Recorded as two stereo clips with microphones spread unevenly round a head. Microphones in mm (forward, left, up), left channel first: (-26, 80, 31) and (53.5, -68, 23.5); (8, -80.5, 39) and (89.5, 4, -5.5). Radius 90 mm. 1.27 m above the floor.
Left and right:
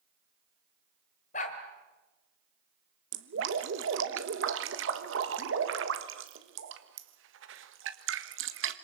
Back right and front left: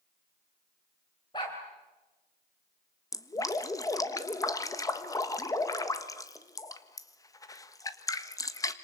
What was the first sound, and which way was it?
A dog barking, 165° left.